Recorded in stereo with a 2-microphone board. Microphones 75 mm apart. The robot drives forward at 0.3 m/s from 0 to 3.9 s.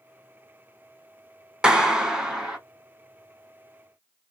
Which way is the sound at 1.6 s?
10° right (ahead or behind).